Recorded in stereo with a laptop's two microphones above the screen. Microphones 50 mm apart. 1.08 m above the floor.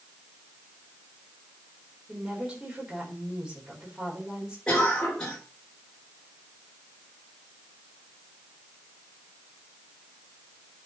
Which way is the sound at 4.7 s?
15° left (ahead or behind).